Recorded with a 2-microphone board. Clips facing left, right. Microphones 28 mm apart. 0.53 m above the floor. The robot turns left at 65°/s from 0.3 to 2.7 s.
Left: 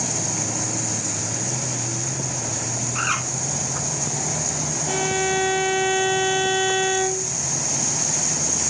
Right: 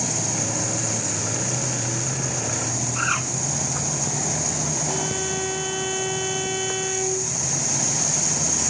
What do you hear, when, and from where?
3.0 s a bird: 20° left (ahead or behind), 4.5 m
4.9 s a violin: 40° left (ahead or behind), 1.5 m